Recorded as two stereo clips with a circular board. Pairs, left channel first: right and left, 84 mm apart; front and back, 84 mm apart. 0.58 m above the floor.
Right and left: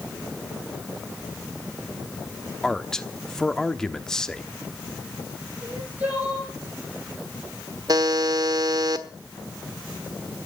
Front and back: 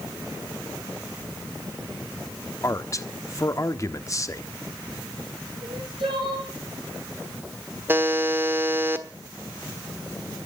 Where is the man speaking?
10° right, 1.1 m.